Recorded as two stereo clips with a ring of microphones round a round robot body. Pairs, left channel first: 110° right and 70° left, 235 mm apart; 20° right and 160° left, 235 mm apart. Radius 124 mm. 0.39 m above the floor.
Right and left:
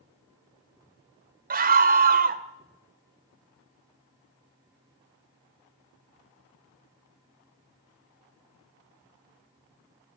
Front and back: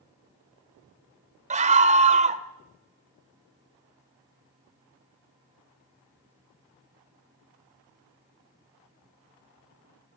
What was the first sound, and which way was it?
A scream, 105° left.